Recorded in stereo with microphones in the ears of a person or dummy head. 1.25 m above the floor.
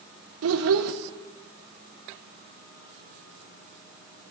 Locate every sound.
0.4 s a child speaking: 70° right (ahead or behind), 0.9 m